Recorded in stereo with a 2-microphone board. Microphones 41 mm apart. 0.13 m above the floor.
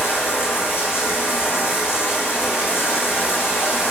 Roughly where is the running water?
Left.